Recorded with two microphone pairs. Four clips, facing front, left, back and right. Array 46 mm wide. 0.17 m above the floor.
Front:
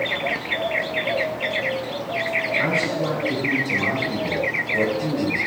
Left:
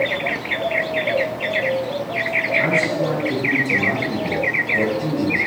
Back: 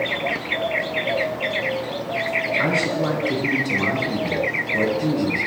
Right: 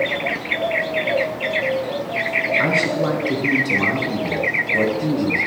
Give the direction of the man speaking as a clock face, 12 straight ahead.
4 o'clock.